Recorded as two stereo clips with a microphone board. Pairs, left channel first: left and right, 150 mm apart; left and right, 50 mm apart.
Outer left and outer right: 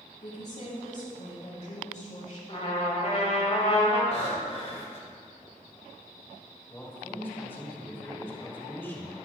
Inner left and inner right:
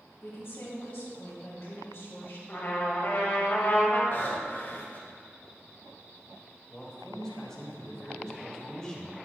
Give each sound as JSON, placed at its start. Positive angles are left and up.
{"t": 0.2, "sound": "a woman speaking", "side_deg": 60, "distance_m": 3.0}
{"t": 2.5, "sound": "a trumpet", "side_deg": 45, "distance_m": 1.9}
{"t": 4.1, "sound": "breathing", "side_deg": 45, "distance_m": 1.6}
{"t": 6.7, "sound": "a man speaking", "side_deg": 15, "distance_m": 1.8}